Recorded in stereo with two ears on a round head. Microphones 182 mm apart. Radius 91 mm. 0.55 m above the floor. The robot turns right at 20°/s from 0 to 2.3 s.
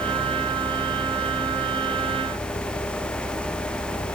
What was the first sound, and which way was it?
Only background noise.